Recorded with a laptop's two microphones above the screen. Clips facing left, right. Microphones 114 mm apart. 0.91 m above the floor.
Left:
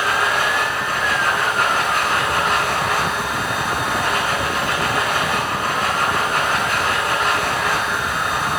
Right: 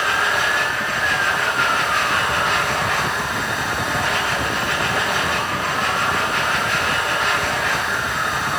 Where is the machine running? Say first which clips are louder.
Left 1 dB; 40° left (ahead or behind), 4 m.